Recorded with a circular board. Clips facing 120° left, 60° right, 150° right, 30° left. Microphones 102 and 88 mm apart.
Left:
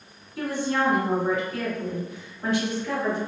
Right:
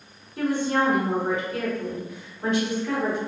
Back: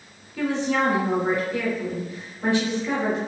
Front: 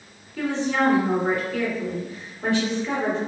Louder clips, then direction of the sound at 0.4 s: Right 3 dB, even; 95° right.